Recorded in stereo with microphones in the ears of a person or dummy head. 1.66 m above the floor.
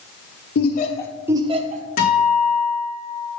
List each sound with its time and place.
0.6 s laughter: 60° left (ahead or behind), 1.1 m; by 1.8 s 45° right (ahead or behind), 1.5 m
2.0 s a guitar: 50° left (ahead or behind), 3.5 m